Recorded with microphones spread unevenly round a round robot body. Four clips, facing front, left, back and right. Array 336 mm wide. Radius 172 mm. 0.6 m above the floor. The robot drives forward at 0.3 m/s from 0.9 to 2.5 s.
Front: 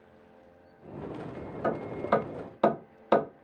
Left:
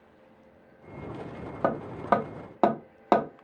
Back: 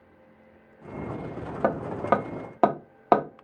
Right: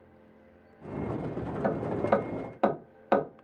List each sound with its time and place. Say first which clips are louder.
1.6 s hammering: left 2 dB, back 5 dB; 145° left, 1.0 m; by 3.5 s 150° left, 1.2 m